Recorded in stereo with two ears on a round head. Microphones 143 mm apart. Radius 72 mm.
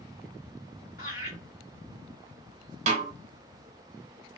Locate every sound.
1.0 s laughter: 50° left (ahead or behind), 1.9 m
2.9 s a snare drum: 45° right (ahead or behind), 0.6 m